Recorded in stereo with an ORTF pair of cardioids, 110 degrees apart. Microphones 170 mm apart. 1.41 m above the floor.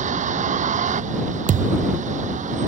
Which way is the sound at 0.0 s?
45° right.